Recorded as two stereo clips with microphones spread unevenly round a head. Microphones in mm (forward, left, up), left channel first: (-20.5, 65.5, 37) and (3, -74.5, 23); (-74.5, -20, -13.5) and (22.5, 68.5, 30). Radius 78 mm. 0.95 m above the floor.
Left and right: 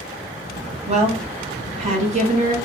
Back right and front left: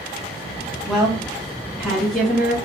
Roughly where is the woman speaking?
Ahead right.